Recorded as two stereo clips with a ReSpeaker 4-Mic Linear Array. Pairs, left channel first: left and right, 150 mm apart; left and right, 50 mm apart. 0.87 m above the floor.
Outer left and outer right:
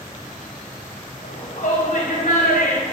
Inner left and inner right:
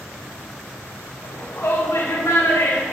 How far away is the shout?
About 3.5 m.